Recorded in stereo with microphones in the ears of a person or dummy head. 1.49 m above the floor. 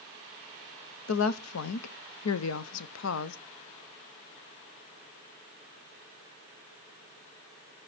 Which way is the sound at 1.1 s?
75° left (ahead or behind).